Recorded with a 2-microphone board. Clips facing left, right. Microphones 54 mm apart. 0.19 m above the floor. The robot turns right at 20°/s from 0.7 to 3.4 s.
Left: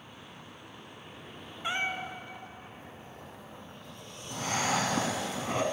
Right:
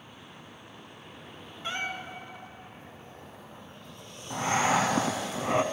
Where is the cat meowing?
15° left (ahead or behind), 0.6 m; by 2.2 s 25° left (ahead or behind), 0.6 m.